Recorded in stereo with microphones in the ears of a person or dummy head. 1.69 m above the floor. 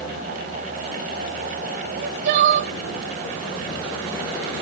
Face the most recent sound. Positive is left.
turn(degrees=-60)  # may be behind; listen again after turning